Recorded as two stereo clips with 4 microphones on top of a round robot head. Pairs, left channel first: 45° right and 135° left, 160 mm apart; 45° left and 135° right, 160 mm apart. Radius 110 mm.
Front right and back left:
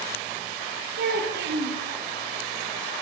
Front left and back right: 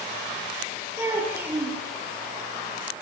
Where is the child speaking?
150° left, 9.5 m.